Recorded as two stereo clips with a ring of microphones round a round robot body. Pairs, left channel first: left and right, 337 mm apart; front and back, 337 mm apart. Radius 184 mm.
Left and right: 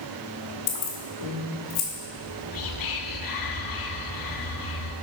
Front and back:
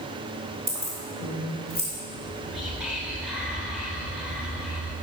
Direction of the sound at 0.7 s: 105° left.